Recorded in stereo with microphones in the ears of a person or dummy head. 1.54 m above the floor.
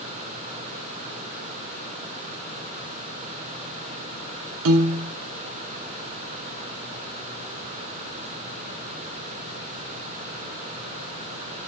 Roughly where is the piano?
Right.